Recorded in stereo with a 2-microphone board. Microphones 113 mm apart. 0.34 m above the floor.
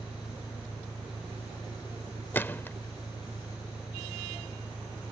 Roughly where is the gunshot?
Centre.